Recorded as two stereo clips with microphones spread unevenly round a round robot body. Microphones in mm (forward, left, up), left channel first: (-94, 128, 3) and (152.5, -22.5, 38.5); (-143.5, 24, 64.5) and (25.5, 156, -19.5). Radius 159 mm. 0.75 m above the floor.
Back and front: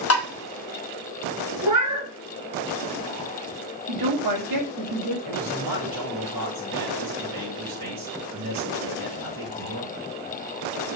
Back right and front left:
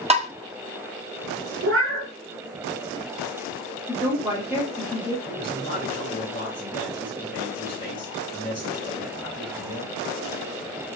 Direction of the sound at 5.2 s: 65° right.